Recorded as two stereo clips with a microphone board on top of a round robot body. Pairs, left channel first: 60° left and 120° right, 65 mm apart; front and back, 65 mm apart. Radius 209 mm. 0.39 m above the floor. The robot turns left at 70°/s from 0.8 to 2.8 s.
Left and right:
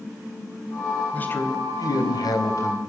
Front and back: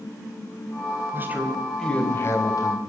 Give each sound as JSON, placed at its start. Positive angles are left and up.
{"t": 1.1, "sound": "a man speaking", "azimuth_deg": 130, "distance_m": 4.0}